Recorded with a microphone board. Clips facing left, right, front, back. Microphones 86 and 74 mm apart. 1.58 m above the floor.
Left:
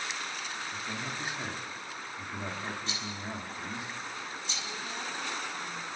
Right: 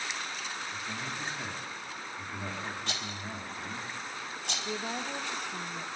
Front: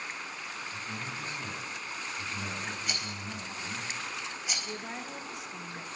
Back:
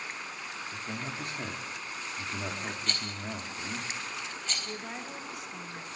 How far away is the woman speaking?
About 2.5 m.